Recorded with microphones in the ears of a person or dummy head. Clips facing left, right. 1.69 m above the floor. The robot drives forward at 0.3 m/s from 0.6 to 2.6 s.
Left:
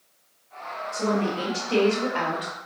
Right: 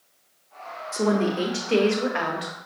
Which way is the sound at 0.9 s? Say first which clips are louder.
Right 3 dB; 45° right (ahead or behind).